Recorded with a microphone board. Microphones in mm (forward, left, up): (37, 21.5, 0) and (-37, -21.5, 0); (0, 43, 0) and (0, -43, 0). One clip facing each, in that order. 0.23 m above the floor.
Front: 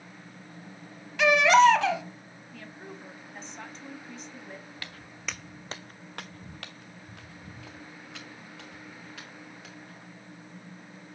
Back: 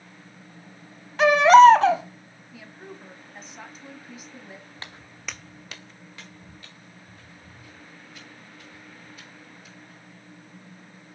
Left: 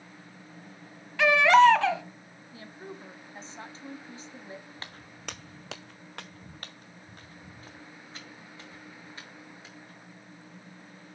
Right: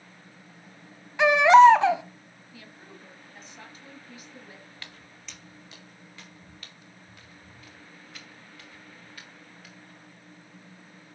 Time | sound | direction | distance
1.2 | a baby crying | 145° right | 0.8 m
2.5 | a woman speaking | 130° left | 1.3 m
4.8 | footsteps | 150° left | 0.9 m